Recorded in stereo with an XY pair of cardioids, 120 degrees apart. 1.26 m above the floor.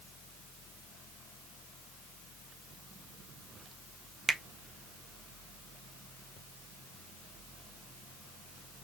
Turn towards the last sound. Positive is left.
turn(degrees=-25)